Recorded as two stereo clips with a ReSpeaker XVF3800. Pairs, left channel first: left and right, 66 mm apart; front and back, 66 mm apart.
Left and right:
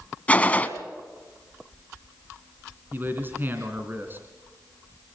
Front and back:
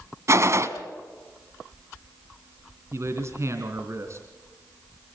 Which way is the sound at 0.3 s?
155° left.